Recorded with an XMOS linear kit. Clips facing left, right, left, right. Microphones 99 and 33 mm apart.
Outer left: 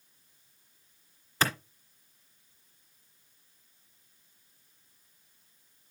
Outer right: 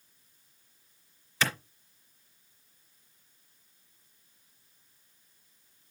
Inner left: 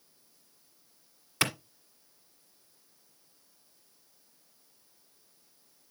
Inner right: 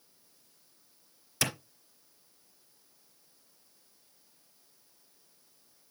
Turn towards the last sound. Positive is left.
turn(degrees=40)  # may be behind; listen again after turning